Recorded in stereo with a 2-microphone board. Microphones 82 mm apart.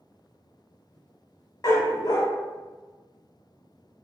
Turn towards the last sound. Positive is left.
turn(degrees=45)  # may be behind; listen again after turning